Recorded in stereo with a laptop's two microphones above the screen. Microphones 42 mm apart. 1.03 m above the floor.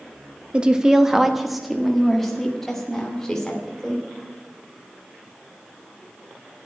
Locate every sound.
0.5 s a woman speaking: 25° right (ahead or behind), 0.8 m; by 4.0 s 15° left (ahead or behind), 3 m